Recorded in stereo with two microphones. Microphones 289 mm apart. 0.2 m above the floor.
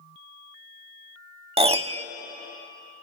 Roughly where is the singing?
I don't hear singing.